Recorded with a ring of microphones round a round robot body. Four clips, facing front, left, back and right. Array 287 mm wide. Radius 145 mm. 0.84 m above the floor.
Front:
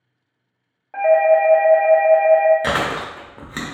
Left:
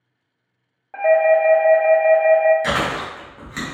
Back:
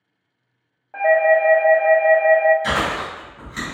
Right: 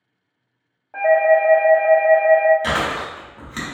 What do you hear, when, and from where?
0.9 s a doorbell: 40° left, 1.0 m
2.6 s chewing: 10° right, 0.8 m